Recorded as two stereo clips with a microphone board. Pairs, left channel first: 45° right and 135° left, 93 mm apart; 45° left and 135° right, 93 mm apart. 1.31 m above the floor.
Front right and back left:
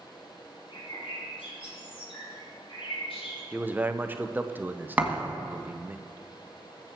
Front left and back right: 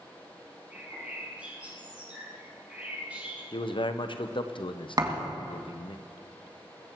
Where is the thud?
155° right, 1.7 m.